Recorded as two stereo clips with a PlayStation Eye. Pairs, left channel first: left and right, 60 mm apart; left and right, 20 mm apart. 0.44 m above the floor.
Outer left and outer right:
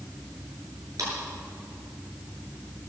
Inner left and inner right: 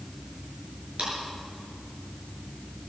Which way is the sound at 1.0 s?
65° right (ahead or behind).